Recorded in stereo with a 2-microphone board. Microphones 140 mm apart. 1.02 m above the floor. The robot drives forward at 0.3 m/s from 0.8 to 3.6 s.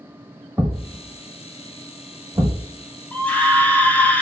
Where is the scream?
10° left (ahead or behind), 0.6 m.